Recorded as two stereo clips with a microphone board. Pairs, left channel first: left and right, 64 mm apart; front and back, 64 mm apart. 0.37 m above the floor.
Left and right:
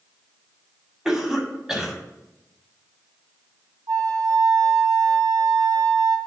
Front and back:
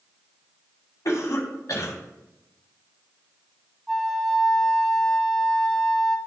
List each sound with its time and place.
1.1 s a cough: 10° right, 2.5 m
3.9 s a flute: 90° right, 1.7 m